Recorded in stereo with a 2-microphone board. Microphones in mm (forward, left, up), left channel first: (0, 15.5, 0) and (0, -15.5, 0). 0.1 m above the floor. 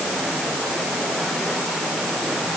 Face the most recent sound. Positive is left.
No sound to turn to.